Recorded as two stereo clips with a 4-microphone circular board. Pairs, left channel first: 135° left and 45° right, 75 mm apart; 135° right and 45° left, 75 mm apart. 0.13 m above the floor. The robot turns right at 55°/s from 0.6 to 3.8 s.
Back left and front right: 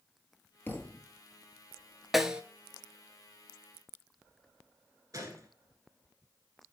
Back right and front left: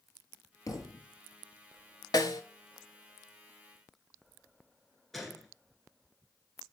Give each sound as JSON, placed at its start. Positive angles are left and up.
{"t": 0.7, "sound": "a thud", "azimuth_deg": -170, "distance_m": 1.0}
{"t": 2.1, "sound": "a snare drum", "azimuth_deg": -135, "distance_m": 0.5}
{"t": 5.1, "sound": "a gunshot", "azimuth_deg": -50, "distance_m": 1.1}